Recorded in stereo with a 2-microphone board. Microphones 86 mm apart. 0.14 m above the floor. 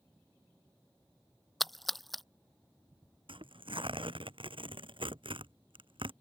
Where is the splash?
Centre (ahead or behind).